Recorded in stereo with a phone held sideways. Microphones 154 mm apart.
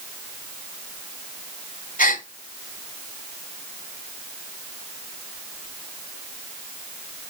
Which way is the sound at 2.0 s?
65° left (ahead or behind).